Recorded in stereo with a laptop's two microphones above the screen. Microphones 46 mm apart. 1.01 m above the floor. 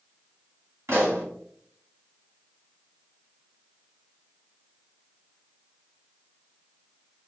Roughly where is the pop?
Right.